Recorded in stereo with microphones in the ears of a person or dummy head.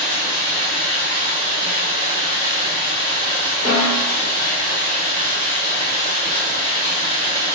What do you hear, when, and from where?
0.0 s running water: 25° right (ahead or behind), 1.9 m
3.6 s a snare drum: 10° right (ahead or behind), 1.4 m